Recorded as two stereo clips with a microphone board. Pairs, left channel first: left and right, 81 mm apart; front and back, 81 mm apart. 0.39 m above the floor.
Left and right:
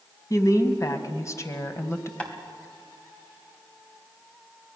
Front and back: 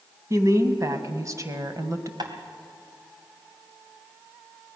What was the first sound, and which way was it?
A woman speaking, 135° left.